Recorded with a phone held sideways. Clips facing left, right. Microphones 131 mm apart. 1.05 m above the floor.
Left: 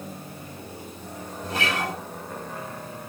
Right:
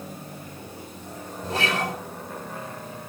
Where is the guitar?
30° right (ahead or behind), 7 m.